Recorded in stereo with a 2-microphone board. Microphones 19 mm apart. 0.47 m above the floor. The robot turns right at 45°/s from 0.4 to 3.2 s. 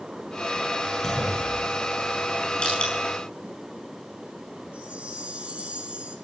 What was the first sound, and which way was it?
A clunk, 25° left (ahead or behind).